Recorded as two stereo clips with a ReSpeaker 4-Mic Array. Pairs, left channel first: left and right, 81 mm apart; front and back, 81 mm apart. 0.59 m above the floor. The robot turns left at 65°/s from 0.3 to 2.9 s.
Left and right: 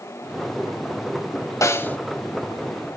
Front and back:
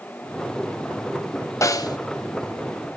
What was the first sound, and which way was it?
A snare drum, 45° left.